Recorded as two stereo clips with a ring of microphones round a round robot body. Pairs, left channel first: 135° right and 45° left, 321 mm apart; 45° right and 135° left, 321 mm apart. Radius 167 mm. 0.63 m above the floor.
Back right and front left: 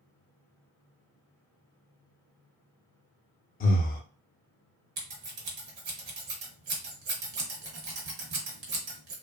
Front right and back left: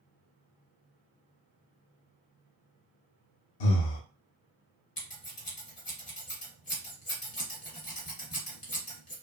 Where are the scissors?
25° left, 1.0 m.